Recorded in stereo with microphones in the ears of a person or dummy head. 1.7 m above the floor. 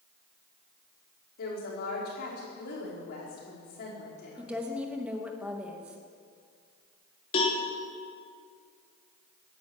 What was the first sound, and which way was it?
A woman speaking, 55° left (ahead or behind).